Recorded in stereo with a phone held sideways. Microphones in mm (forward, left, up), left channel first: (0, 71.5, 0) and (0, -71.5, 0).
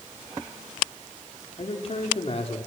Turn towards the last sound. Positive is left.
turn(degrees=45)  # may be behind; listen again after turning